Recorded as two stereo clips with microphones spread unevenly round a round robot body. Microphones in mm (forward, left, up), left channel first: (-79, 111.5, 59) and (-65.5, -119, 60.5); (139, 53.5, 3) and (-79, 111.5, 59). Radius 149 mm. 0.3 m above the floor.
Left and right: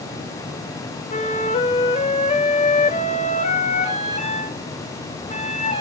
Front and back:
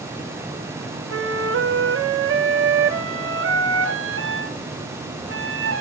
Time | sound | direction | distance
1.1 | a flute | 145° left | 1.9 m